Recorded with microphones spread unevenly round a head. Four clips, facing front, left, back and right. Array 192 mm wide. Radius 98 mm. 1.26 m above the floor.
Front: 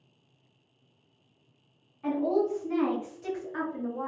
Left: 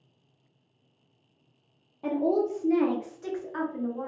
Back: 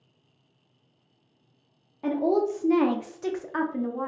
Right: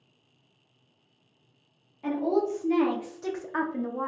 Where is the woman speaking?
150° left, 0.9 m; by 4.1 s 105° right, 0.8 m.